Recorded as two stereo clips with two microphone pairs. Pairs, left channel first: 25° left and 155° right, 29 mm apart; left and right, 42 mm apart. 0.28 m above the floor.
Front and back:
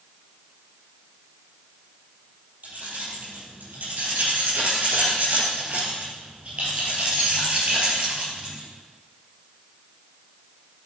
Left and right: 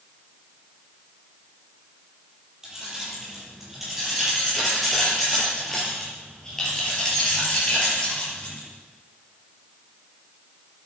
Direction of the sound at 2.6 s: 170° right.